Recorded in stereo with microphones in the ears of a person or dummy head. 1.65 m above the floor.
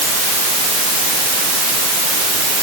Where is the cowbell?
I don't hear a cowbell.